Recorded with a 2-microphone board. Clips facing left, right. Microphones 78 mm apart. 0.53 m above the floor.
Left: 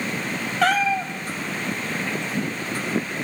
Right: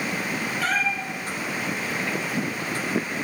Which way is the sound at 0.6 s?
75° left (ahead or behind).